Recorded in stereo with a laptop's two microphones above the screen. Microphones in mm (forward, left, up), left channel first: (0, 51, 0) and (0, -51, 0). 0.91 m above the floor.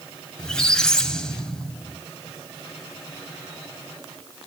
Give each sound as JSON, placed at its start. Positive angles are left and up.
{"t": 0.4, "sound": "a squeak", "side_deg": 10, "distance_m": 1.7}